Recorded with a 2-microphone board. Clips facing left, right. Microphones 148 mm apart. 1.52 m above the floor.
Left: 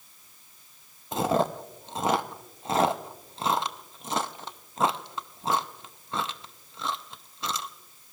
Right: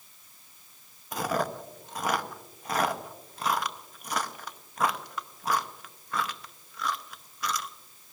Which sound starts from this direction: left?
Chewing, at 1.1 s.